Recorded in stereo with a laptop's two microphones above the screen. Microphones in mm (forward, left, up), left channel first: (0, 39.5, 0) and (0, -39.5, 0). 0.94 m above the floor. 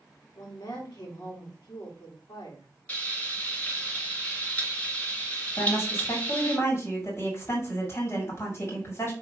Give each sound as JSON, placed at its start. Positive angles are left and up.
{"t": 0.3, "sound": "a woman speaking", "side_deg": 65, "distance_m": 1.7}
{"t": 2.9, "sound": "frying", "side_deg": 20, "distance_m": 2.5}
{"t": 5.6, "sound": "a woman speaking", "side_deg": 35, "distance_m": 3.0}